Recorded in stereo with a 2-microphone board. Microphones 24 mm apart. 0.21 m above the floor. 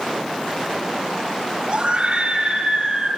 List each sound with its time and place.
1.7 s a scream: 45° right (ahead or behind), 4.5 m; by 3.1 s 35° right (ahead or behind), 5 m